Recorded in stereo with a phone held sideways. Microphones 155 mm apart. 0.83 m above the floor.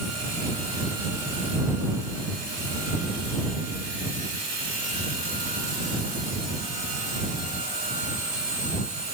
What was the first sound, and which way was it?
Only background noise.